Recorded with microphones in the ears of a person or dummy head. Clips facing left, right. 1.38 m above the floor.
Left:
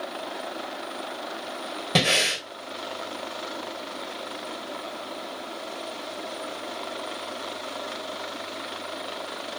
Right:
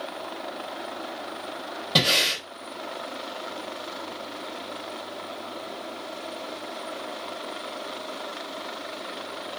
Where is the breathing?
30° left (ahead or behind), 3.5 m.